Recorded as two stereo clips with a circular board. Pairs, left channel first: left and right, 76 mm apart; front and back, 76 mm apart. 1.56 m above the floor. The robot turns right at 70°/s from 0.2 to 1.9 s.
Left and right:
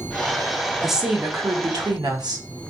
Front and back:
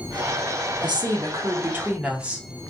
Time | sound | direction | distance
0.8 | a woman speaking | 175° left | 0.7 m